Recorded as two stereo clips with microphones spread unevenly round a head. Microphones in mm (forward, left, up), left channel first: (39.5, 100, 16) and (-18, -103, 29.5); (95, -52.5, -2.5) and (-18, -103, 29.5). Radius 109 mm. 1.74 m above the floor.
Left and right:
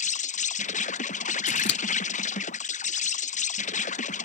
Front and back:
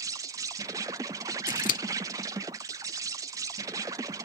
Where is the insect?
125° left.